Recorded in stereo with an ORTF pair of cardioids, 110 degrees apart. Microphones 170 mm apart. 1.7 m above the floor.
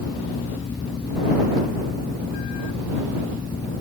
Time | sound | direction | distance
0.0 | a fan | 25° left | ?